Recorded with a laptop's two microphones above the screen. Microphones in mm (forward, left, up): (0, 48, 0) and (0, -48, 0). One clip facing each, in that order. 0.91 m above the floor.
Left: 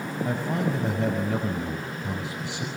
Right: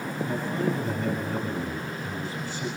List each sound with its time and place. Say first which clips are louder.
0.2 s a man speaking: left 1 dB; 85° left, 5.5 m